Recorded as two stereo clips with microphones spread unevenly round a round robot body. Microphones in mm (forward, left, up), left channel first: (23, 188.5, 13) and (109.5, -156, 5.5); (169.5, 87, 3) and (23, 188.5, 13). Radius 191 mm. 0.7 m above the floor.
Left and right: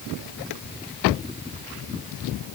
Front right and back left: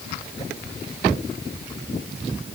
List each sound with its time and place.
Only background noise.